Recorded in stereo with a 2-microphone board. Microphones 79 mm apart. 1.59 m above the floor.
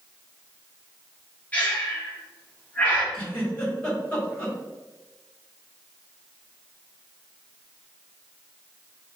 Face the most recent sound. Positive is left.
turn(degrees=20)  # may be behind; listen again after turning